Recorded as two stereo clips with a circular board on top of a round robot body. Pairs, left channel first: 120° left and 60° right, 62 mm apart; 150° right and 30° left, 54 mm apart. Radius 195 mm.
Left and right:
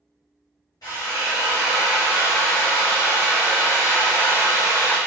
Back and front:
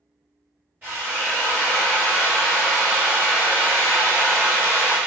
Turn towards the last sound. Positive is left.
turn(degrees=90)